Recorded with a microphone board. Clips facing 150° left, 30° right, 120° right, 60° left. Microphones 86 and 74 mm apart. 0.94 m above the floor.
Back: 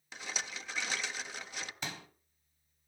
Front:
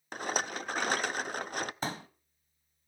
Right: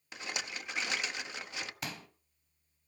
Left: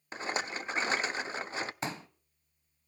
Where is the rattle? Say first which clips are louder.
Front 9 dB, left 6 dB; 10° left, 0.5 m.